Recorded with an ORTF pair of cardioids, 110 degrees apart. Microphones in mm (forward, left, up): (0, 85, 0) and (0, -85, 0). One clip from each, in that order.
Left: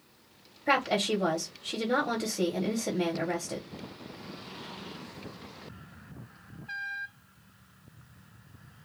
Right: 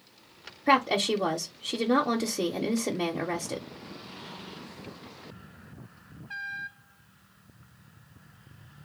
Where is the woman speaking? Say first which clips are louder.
Right 3 dB; 20° right, 0.6 m.